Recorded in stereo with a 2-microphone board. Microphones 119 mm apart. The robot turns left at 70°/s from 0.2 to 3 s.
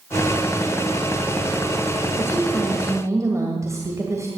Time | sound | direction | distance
2.2 | a woman speaking | 30° left | 1.9 m